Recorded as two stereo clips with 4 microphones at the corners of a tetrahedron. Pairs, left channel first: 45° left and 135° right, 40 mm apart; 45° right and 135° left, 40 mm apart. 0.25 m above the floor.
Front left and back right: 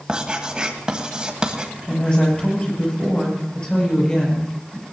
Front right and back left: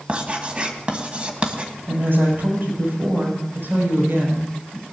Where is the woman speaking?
110° left, 6.5 m.